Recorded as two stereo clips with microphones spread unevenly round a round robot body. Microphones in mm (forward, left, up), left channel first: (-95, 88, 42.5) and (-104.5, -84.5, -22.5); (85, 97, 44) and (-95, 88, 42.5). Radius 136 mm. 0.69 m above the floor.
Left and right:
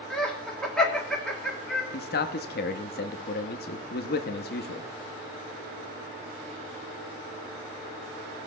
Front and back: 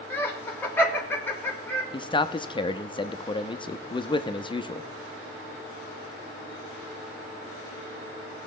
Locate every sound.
0.1 s laughter: 60° right, 1.0 m
1.9 s a man speaking: 55° left, 0.7 m